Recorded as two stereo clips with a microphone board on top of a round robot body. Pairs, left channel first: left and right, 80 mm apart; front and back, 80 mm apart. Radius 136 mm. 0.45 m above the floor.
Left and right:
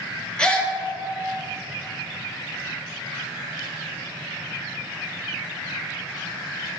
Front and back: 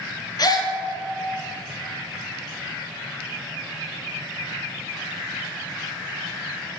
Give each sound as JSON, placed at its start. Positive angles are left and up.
{"t": 0.4, "sound": "a gasp", "azimuth_deg": 15, "distance_m": 0.6}